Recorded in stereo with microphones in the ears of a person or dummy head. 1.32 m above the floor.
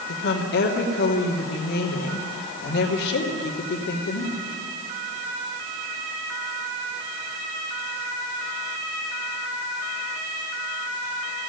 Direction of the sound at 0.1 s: 55° left (ahead or behind).